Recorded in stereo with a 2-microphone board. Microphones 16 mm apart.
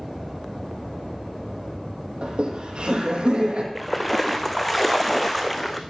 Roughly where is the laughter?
Right.